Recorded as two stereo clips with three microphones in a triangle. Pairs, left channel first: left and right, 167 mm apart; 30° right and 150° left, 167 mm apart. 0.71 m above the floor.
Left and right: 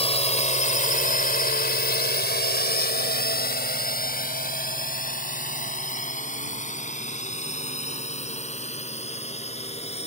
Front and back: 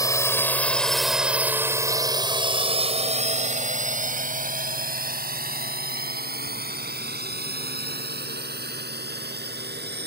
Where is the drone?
40° left; by 10.1 s 140° left.